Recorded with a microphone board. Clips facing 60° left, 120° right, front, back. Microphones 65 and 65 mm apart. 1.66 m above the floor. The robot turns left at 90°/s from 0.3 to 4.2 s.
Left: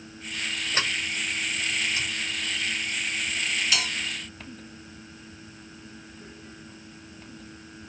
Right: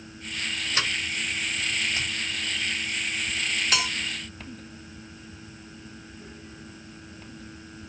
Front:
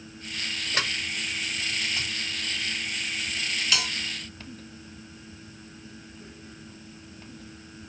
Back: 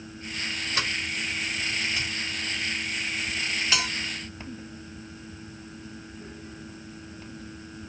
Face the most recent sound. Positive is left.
turn(degrees=-175)